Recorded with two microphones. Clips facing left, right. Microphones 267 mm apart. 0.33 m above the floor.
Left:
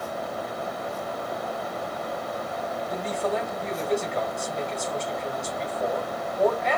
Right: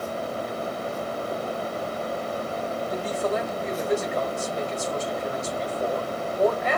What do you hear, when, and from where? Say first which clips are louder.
2.9 s a man speaking: right 1 dB; 5° right (ahead or behind), 1.6 m